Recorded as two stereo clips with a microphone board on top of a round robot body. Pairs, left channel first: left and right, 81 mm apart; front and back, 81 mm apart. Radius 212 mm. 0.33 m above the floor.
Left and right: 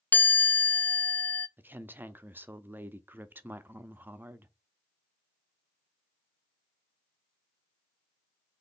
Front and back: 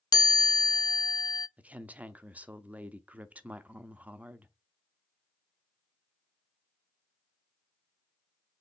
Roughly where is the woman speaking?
Behind right.